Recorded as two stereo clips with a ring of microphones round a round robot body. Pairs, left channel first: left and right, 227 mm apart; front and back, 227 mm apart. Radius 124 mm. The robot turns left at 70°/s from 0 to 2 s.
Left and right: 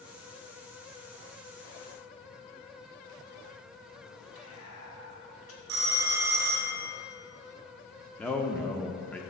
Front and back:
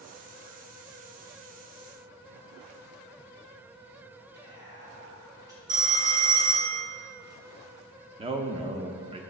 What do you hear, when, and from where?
4.3 s whispering: 105° left, 2.5 m
5.7 s a phone ringing: 130° right, 1.1 m
8.2 s a man speaking: 170° left, 0.6 m